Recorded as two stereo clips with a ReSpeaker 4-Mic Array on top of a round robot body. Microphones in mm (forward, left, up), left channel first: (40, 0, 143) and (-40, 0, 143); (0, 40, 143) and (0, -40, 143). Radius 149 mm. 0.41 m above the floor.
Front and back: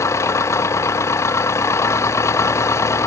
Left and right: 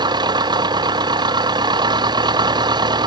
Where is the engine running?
55° right.